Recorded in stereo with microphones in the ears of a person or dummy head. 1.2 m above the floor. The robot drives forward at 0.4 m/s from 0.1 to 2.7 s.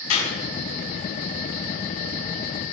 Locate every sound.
0.1 s a clap: 85° left, 6.5 m